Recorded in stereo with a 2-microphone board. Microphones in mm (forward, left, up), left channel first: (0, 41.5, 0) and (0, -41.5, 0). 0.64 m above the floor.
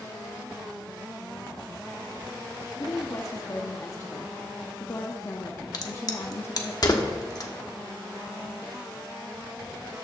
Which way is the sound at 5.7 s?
50° left (ahead or behind).